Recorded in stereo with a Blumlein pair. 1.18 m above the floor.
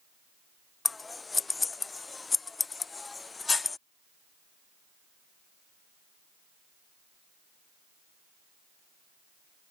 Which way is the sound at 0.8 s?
10° left.